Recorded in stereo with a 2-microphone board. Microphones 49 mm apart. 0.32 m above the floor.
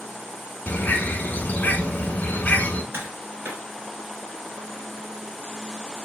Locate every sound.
0.7 s a bird: 35° left (ahead or behind), 0.8 m
2.9 s tapping: 50° right (ahead or behind), 2.5 m